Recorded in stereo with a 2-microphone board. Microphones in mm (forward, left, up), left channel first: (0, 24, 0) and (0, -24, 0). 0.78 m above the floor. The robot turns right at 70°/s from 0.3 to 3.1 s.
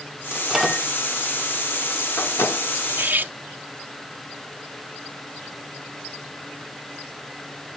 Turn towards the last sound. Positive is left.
turn(degrees=-40)  # may be behind; listen again after turning